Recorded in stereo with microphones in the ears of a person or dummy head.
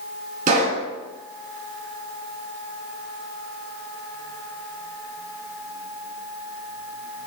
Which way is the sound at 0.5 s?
35° right (ahead or behind).